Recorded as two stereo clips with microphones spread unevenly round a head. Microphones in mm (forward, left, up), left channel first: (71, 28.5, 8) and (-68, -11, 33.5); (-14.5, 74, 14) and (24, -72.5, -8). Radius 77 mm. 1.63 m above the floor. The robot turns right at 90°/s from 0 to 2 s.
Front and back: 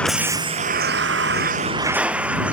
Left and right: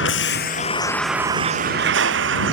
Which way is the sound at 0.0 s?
100° left.